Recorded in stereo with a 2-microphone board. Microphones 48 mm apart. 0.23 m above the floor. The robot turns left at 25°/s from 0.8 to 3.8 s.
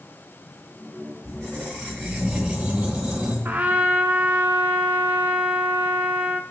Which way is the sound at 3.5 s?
45° right (ahead or behind).